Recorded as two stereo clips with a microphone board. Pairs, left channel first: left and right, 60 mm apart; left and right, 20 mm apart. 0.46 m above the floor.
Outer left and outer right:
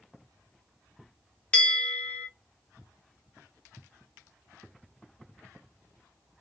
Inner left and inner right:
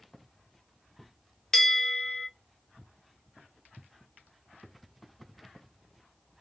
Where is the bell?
20° left (ahead or behind), 1.1 m.